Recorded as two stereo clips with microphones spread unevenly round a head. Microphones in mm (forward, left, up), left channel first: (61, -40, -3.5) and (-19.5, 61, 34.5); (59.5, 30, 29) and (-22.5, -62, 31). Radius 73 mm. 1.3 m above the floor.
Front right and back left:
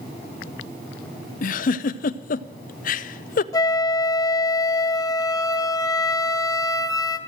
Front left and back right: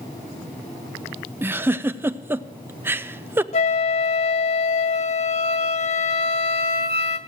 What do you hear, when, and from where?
1.4 s a giggle: 60° right, 0.5 m
3.5 s a flute: 20° left, 1.8 m